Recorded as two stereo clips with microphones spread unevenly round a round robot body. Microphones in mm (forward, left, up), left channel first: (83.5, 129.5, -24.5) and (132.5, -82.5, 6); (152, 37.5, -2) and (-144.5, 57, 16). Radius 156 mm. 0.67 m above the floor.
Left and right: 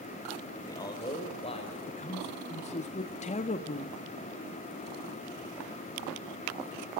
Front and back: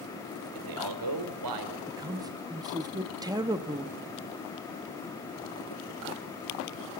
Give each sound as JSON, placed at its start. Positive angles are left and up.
{"t": 0.6, "sound": "a man speaking", "azimuth_deg": 180, "distance_m": 3.0}
{"t": 1.9, "sound": "a man speaking", "azimuth_deg": 100, "distance_m": 0.8}